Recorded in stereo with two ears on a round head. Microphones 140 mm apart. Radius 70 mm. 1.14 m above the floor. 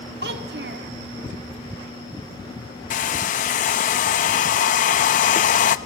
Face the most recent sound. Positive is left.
turn(degrees=55)  # may be behind; listen again after turning